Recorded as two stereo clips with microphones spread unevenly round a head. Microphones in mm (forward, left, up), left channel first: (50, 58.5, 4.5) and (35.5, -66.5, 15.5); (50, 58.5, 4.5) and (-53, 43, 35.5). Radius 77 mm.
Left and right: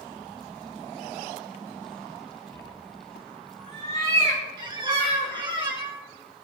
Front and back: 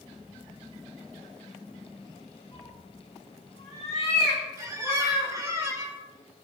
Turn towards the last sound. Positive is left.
turn(degrees=-135)